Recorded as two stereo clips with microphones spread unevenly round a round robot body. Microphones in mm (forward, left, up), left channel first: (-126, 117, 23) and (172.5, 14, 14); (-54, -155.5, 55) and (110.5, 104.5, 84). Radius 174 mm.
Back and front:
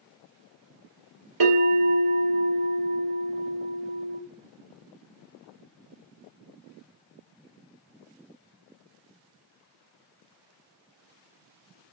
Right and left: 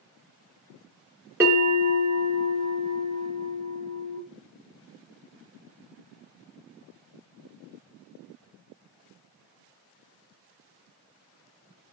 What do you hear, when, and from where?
1.4 s a bell: 25° right, 2.5 m